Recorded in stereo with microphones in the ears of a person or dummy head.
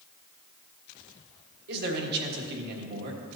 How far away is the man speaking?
About 1.6 m.